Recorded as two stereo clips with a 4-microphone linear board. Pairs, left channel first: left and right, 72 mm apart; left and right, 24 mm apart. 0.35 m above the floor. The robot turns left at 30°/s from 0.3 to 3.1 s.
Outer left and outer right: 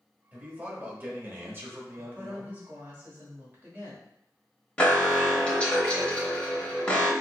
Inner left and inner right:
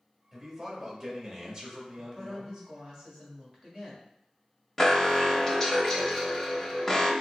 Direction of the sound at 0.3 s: 40° right.